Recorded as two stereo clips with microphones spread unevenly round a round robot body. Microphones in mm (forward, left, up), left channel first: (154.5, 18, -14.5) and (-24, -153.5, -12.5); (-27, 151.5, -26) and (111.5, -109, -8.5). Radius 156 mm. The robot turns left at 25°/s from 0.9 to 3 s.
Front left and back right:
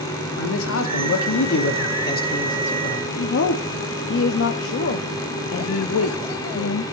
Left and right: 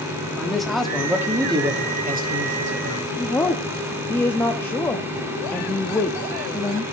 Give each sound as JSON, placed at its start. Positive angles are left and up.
{"t": 0.4, "sound": "a man speaking", "azimuth_deg": 30, "distance_m": 1.5}
{"t": 3.2, "sound": "a woman speaking", "azimuth_deg": 40, "distance_m": 0.7}